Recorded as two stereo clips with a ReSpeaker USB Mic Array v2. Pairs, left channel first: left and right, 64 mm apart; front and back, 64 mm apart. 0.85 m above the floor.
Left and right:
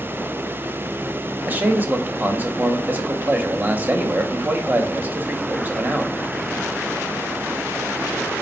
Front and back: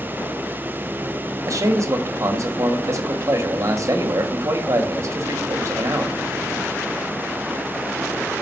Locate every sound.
1.5 s a man speaking: 150° right, 0.9 m